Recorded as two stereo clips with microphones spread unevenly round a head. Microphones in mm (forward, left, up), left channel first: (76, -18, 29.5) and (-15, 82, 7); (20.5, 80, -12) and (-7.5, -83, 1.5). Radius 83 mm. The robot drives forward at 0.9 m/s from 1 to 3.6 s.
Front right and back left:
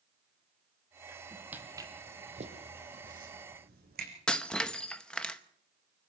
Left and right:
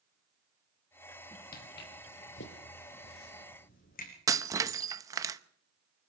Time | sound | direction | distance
1.5 | footsteps | 50° left | 3 m
4.3 | breaking glass | 95° right | 0.7 m